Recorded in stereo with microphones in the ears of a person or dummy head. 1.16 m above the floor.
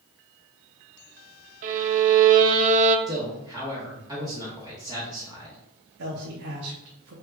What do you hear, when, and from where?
1.6 s a violin: 40° right (ahead or behind), 0.6 m
3.1 s a man speaking: 15° right (ahead or behind), 0.9 m
6.0 s a man speaking: 60° right (ahead or behind), 0.9 m